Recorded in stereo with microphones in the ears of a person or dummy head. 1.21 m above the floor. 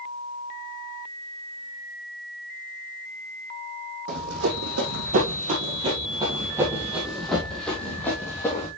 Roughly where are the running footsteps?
Right.